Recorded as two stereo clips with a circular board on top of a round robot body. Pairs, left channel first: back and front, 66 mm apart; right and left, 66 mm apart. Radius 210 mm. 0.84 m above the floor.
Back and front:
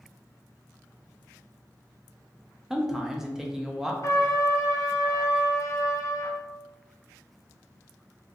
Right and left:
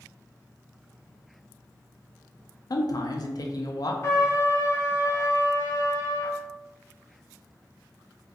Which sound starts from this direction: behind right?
A trumpet, at 4.0 s.